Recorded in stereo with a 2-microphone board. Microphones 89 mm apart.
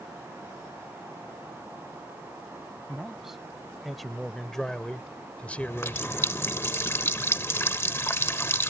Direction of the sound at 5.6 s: 30° left (ahead or behind).